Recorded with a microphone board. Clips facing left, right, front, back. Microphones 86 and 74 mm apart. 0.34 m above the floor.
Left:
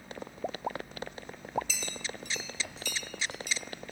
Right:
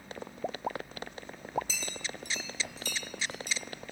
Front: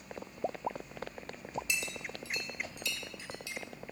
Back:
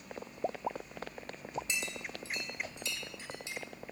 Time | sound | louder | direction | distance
1.7 | a clink | even, front 1 dB | 130° right | 0.7 m